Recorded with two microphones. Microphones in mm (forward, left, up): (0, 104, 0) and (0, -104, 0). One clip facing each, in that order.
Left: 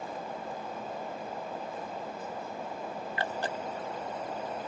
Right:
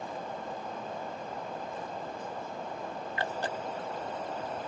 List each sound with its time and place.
Only background noise.